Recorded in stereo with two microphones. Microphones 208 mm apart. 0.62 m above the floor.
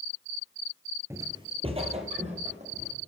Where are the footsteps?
15° right (ahead or behind), 0.6 m; by 2.9 s 35° right (ahead or behind), 1.7 m.